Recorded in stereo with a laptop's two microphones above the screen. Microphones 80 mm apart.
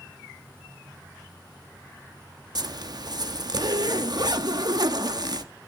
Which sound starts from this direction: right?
A zipper, at 2.5 s.